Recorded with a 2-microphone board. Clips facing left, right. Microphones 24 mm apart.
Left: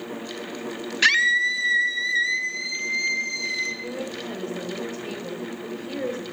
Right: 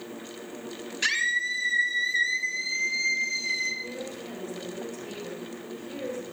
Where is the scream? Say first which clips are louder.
Left 7 dB; 35° left (ahead or behind), 1.6 m; by 3.7 s 10° left (ahead or behind), 5.5 m.